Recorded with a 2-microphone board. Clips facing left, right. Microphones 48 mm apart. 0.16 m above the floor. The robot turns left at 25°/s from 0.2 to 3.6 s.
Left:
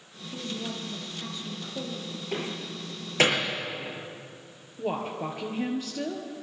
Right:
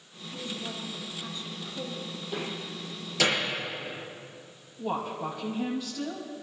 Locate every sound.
0.3 s a woman speaking: 110° left, 5.5 m; by 2.2 s 60° left, 5.5 m
2.3 s a door slam: 60° left (ahead or behind), 7 m; by 3.5 s 35° left (ahead or behind), 7 m
4.8 s a woman speaking: 45° left (ahead or behind), 3 m